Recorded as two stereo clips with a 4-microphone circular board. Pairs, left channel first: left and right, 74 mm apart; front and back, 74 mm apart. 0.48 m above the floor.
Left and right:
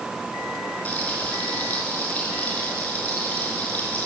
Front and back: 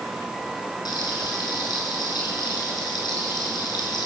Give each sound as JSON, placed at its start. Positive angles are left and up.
{"t": 0.8, "sound": "frying", "azimuth_deg": 20, "distance_m": 6.5}